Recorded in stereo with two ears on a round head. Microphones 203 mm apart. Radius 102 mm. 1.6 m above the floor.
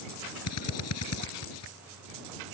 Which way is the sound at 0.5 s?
85° left.